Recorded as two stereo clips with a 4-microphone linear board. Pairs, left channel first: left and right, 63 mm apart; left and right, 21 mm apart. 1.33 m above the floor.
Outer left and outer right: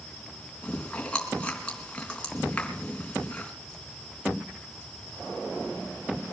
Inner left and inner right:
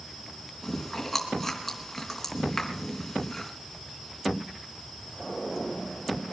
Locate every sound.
0.6 s chewing: 15° left (ahead or behind), 3.5 m